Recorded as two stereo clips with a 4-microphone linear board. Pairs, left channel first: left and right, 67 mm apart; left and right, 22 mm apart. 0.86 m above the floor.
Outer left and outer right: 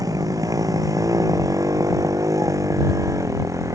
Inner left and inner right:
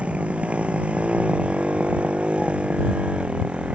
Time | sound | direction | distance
0.0 | a motorcycle | 60° right (ahead or behind) | ?